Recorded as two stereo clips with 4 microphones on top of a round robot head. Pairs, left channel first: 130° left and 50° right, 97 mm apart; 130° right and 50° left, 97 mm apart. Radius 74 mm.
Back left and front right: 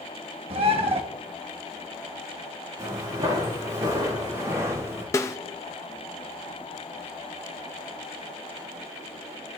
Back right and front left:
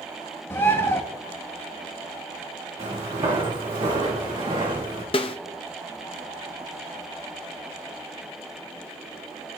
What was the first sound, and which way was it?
A bird, 65° right.